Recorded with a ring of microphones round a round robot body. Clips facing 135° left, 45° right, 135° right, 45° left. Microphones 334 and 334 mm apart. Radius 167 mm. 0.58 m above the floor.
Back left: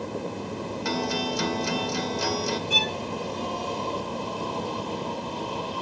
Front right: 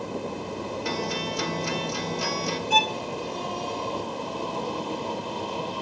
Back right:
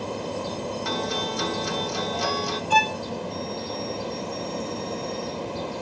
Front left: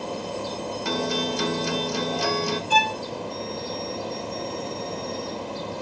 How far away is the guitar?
About 1.3 m.